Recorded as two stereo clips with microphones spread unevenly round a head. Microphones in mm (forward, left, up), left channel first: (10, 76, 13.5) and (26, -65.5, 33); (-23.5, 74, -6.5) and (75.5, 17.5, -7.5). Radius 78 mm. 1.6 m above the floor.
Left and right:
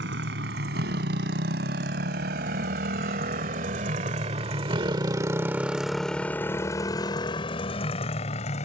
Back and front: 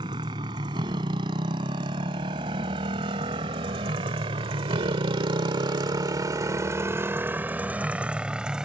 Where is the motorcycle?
90° right; by 8.7 s 55° left.